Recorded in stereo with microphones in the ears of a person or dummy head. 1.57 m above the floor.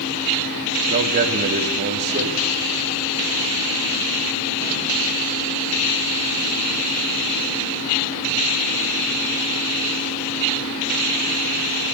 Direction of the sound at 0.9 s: 55° right (ahead or behind).